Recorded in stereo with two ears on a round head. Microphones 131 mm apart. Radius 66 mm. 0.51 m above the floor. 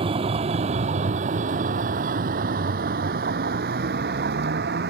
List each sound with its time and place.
0.0 s a vehicle: 40° right (ahead or behind); by 4.9 s 80° right